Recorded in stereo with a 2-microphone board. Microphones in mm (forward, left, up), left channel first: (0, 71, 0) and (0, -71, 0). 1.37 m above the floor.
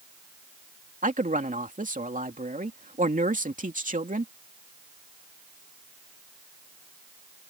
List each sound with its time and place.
1.0 s a man speaking: 80° right